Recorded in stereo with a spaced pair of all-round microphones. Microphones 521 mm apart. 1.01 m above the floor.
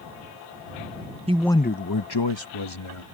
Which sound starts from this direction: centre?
A man speaking, at 1.3 s.